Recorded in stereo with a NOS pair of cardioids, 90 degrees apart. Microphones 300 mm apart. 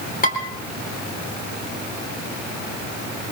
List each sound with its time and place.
0.2 s dishes clattering: 30° left, 4 m